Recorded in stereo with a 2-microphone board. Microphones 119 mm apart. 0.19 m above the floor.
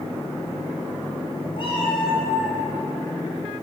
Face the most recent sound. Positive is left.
turn(degrees=45)  # may be behind; listen again after turning